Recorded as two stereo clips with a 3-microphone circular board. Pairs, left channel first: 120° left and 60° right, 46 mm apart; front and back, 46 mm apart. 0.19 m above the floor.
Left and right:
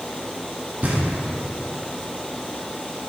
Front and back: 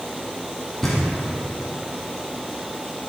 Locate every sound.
0.8 s knocking: 80° right, 1.4 m